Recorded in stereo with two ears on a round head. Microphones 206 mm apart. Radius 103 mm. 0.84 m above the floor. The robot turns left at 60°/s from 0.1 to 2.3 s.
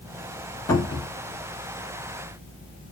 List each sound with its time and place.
0.7 s a cupboard door: 10° left (ahead or behind), 1.3 m; by 1.1 s 35° left (ahead or behind), 1.3 m